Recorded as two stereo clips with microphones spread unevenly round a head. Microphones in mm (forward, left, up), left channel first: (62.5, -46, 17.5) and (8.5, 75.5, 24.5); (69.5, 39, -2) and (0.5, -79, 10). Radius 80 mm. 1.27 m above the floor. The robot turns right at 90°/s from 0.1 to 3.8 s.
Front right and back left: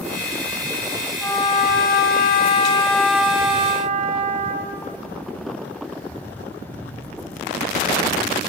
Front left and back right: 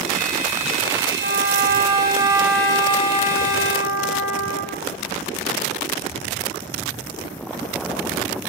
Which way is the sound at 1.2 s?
150° right.